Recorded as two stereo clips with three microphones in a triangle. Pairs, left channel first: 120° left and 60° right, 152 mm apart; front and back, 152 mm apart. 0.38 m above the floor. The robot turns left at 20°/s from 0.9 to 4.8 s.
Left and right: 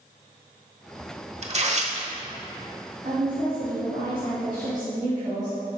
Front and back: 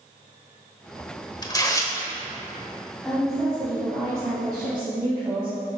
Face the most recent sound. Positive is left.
turn(degrees=-120)